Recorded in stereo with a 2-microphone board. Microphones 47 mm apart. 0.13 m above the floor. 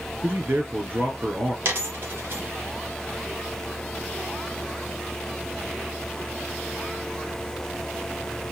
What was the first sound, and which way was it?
A man speaking, 50° right (ahead or behind).